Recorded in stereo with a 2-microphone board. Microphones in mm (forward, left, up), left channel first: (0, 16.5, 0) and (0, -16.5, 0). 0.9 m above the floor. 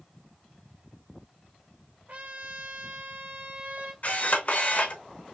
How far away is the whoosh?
No whoosh in this recording.